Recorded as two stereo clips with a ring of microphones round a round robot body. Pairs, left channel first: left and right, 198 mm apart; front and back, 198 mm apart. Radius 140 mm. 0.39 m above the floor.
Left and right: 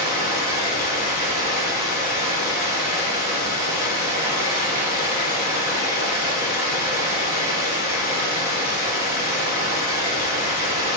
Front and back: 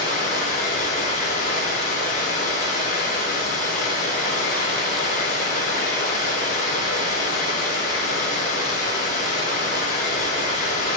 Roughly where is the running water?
Ahead left.